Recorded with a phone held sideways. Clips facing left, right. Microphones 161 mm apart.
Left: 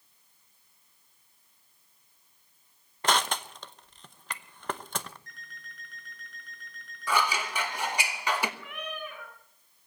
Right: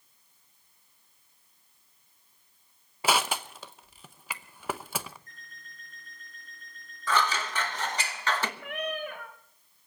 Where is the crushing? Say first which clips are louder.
Right 1 dB; 5° right (ahead or behind), 0.8 m.